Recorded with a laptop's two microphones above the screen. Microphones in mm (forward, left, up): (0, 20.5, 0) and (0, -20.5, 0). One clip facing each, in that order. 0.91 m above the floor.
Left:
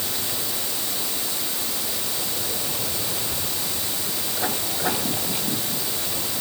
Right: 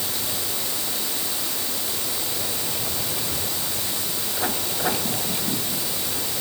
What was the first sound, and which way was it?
Only background noise.